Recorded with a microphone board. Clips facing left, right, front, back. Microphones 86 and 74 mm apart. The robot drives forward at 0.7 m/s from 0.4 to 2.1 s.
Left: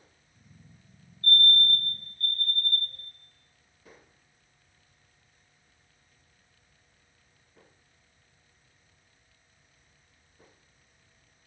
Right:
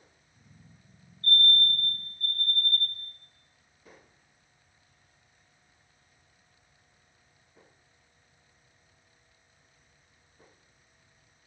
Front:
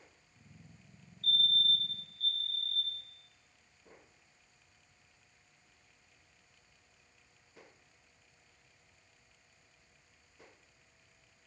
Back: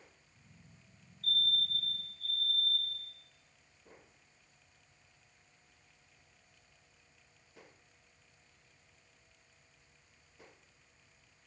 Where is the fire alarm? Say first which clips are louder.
Left 1 dB, front 3 dB; 95° left, 4 m; by 3.0 s 105° left, 4 m.